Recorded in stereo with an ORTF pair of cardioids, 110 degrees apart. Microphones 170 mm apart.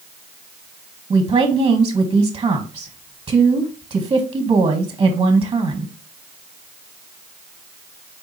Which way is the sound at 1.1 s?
25° right.